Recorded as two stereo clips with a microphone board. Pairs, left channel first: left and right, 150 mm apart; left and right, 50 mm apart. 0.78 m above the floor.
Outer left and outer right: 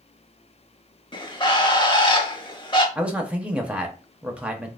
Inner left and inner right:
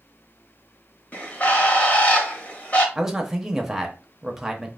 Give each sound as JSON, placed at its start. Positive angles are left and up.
{"t": 1.1, "sound": "a bird", "side_deg": 35, "distance_m": 0.7}
{"t": 3.0, "sound": "a man speaking", "side_deg": -10, "distance_m": 0.8}